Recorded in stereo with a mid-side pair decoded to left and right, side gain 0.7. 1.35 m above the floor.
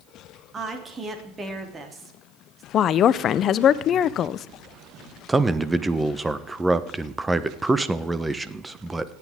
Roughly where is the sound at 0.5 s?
Ahead.